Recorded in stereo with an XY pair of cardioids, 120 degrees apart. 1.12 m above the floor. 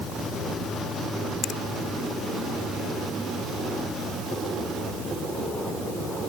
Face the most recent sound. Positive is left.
turn(degrees=65)